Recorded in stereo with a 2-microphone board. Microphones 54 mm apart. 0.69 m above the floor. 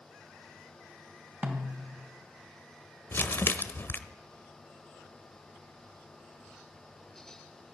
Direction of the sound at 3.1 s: 45° left (ahead or behind).